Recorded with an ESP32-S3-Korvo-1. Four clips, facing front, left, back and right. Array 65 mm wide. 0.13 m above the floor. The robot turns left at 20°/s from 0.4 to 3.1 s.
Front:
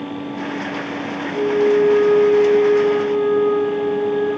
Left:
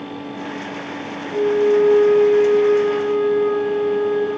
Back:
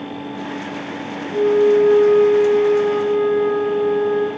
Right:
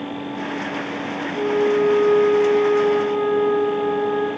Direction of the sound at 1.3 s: 125° left.